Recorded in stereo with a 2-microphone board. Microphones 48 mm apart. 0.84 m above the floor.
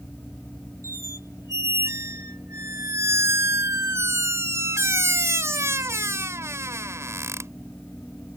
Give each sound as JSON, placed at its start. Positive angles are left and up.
{"t": 0.8, "sound": "a squeak", "side_deg": -70}